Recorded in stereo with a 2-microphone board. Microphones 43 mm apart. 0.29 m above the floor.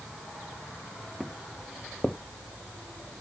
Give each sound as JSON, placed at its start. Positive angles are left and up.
{"t": 1.2, "sound": "footsteps", "side_deg": 5, "distance_m": 0.8}